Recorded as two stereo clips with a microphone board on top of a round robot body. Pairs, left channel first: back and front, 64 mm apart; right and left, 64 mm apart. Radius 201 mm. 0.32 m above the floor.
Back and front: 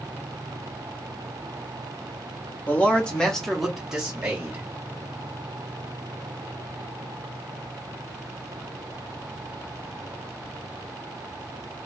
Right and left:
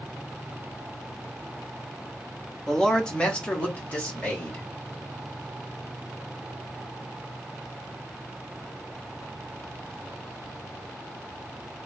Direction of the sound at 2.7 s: 160° right.